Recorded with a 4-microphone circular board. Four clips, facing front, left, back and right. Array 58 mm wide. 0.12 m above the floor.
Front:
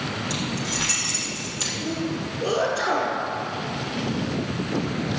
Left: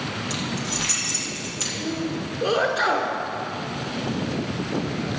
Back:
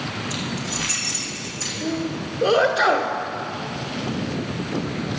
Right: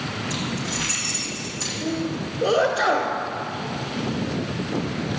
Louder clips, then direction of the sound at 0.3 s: Right 1 dB, even; 50° left.